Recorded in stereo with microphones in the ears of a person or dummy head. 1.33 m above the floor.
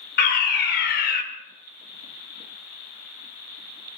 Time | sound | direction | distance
0.2 | a fire alarm | 45° left (ahead or behind) | 1.8 m